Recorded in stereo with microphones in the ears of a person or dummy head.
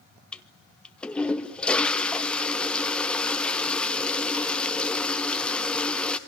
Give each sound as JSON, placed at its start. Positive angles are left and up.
{"t": 0.3, "sound": "a toilet flushing", "side_deg": 5, "distance_m": 1.0}